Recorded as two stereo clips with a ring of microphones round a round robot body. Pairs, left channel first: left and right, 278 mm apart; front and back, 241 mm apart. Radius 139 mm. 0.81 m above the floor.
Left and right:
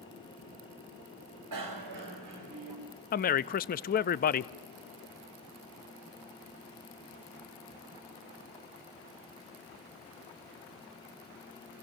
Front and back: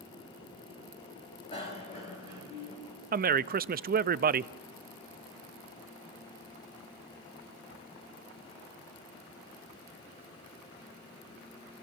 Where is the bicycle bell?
70° right, 2.5 m.